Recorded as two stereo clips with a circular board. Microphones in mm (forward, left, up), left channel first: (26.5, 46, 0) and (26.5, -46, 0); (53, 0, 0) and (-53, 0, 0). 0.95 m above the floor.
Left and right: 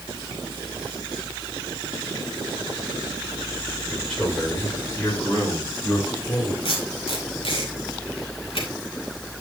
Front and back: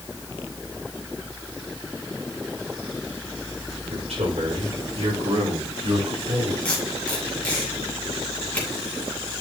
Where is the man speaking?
175° left, 4 m; by 6.5 s 150° left, 4 m.